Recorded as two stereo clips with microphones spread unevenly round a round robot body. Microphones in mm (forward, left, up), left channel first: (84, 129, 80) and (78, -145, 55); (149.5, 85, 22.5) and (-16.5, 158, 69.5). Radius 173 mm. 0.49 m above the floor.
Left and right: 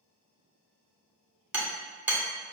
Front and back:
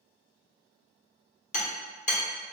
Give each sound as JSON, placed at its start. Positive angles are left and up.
{"t": 1.5, "sound": "hammering", "azimuth_deg": -10, "distance_m": 1.2}